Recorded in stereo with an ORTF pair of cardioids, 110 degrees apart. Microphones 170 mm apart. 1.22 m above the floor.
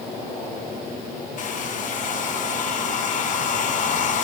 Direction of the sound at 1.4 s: 50° left.